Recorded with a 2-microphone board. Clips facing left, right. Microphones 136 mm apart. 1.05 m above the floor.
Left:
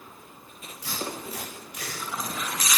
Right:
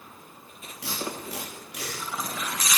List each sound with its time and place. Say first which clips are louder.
0.8 s tape being pulled: even; 85° right, 6.5 m